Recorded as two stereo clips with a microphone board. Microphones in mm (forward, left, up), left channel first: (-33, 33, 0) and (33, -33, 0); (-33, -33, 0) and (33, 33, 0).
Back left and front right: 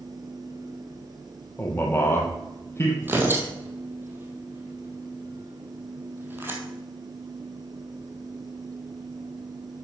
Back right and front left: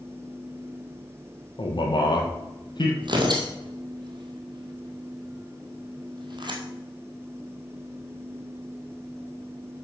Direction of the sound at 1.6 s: 160° right.